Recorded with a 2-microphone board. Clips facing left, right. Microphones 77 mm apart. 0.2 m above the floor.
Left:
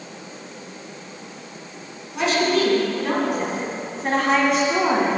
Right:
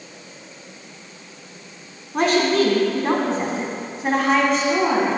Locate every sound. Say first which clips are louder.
2.1 s a woman speaking: right 2 dB; 50° right (ahead or behind), 2 m; by 5.2 s 15° left (ahead or behind), 2 m